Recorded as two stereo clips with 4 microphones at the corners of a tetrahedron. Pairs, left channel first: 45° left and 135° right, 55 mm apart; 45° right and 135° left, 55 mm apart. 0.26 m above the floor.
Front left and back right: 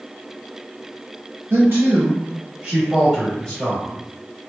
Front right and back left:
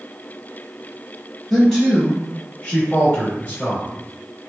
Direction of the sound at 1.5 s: 130° right.